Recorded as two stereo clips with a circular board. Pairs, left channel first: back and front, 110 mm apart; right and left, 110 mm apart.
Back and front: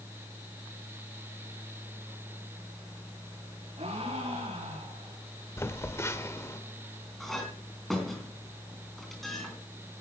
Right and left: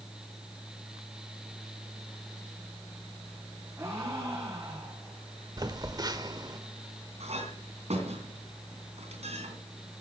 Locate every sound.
3.8 s a gasp: 25° left, 5 m
5.6 s a phone buzzing: 125° left, 1.3 m
7.2 s a clink: 95° left, 3.5 m